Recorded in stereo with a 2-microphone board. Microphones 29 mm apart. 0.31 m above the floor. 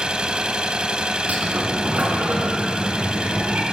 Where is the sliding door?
65° right (ahead or behind), 3 m.